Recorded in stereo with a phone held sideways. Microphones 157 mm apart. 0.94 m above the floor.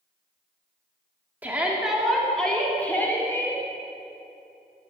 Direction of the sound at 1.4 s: 10° right (ahead or behind).